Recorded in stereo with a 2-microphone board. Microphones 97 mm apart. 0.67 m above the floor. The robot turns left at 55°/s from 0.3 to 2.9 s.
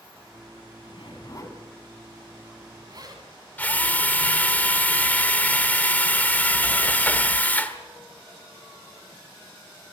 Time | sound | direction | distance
0.8 | a zipper | 70° left (ahead or behind) | 3 m
3.6 | a drill | 15° left (ahead or behind) | 1.2 m